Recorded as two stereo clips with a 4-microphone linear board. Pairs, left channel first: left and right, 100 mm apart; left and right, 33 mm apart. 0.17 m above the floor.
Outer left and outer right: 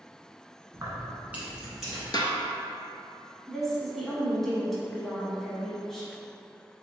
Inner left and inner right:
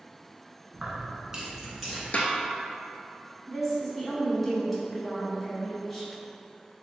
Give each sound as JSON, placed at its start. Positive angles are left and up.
{"t": 0.7, "sound": "keys jangling", "side_deg": -40, "distance_m": 1.1}
{"t": 2.1, "sound": "a snare drum", "side_deg": 50, "distance_m": 0.6}
{"t": 3.5, "sound": "a woman speaking", "side_deg": 5, "distance_m": 1.1}